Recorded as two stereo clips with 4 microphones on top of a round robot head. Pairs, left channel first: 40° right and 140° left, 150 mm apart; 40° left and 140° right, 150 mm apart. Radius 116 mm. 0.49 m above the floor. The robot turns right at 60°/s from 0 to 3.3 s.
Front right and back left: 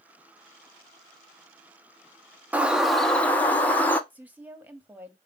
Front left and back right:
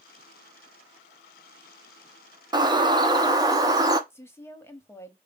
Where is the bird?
155° right, 1.1 m; by 4.0 s 110° right, 1.1 m.